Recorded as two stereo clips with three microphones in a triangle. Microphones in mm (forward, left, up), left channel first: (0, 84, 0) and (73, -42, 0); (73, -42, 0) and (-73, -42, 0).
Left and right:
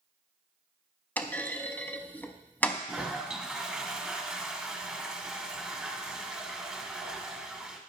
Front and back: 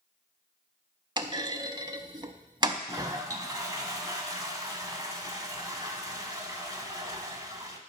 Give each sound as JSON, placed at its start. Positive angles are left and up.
{"t": 1.2, "sound": "a clunk", "azimuth_deg": -175, "distance_m": 0.5}
{"t": 2.9, "sound": "a toilet flushing", "azimuth_deg": -140, "distance_m": 0.9}